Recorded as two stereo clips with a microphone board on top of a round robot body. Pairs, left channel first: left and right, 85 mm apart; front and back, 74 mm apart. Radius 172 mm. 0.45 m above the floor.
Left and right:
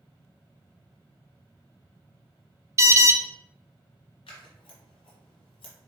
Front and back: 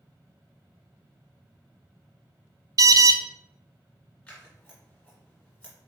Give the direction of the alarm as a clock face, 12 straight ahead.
5 o'clock.